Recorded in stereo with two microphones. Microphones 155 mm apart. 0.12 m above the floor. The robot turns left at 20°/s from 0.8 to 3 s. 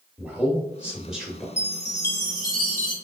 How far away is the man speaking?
About 1.5 m.